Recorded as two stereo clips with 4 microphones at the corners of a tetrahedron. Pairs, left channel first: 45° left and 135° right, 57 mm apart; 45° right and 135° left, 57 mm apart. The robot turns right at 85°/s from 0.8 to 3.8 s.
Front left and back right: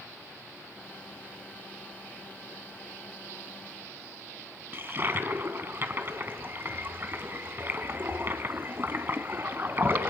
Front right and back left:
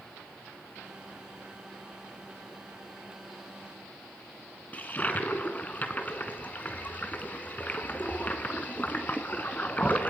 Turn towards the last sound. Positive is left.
turn(degrees=-95)